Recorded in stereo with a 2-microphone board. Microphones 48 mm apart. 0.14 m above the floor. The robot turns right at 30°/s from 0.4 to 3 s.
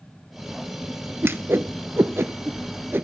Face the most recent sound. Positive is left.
turn(degrees=-50)  # may be behind; listen again after turning